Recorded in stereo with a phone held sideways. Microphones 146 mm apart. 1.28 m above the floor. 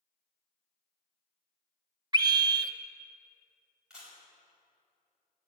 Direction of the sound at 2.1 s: 30° right (ahead or behind).